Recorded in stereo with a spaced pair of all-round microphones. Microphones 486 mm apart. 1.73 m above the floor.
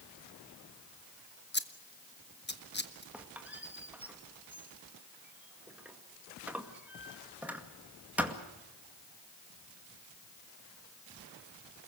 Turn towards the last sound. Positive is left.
turn(degrees=-5)  # may be behind; listen again after turning